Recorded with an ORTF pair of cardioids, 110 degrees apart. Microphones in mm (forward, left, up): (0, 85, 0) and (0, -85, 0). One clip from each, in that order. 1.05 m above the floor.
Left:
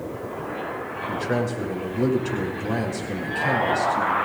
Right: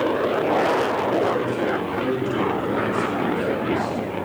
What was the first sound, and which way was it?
A man speaking, 60° left.